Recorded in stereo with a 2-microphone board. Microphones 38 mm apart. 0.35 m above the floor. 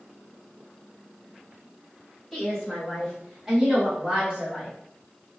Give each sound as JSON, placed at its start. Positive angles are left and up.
{"t": 2.3, "sound": "a woman speaking", "side_deg": 5, "distance_m": 1.6}